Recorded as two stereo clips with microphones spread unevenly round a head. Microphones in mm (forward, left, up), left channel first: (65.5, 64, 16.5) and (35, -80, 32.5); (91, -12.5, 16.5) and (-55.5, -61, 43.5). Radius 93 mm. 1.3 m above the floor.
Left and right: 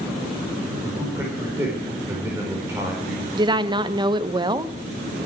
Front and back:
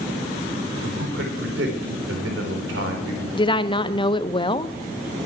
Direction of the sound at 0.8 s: Straight behind.